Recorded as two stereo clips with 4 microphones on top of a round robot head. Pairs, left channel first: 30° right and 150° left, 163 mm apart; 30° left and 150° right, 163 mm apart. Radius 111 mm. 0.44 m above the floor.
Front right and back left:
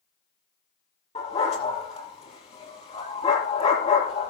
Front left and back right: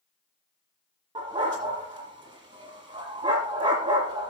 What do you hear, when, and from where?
1.1 s a dog barking: 85° right, 6 m